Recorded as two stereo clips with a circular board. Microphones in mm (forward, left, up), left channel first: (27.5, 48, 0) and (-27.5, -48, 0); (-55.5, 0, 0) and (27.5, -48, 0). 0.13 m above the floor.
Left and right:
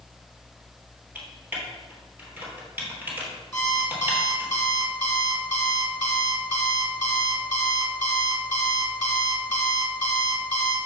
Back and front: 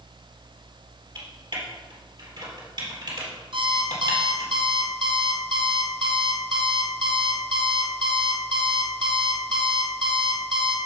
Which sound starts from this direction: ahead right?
Typing on a keyboard, at 1.1 s.